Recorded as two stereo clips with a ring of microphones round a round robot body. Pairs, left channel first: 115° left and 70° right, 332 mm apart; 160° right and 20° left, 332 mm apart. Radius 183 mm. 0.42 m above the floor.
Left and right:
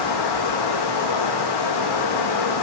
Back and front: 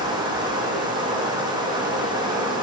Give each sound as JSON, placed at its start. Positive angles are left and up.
{"t": 0.0, "sound": "running water", "azimuth_deg": 100, "distance_m": 5.5}